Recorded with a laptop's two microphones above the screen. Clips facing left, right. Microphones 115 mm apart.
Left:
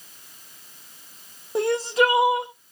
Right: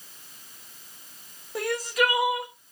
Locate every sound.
1.6 s crying: 25° left (ahead or behind), 0.6 m